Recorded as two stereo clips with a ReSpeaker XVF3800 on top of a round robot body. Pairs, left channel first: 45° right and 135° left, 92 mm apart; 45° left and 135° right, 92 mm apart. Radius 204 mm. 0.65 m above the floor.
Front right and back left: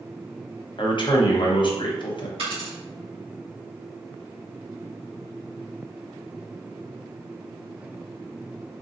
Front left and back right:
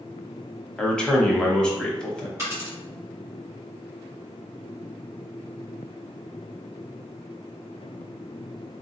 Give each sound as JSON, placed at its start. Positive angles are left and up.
{"t": 0.8, "sound": "a man speaking", "azimuth_deg": -35, "distance_m": 1.0}
{"t": 2.4, "sound": "a dropped coin", "azimuth_deg": 165, "distance_m": 1.8}